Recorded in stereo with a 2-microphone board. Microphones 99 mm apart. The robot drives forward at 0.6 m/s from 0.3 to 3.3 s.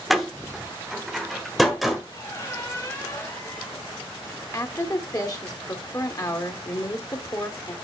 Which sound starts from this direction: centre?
A door slam, at 0.1 s.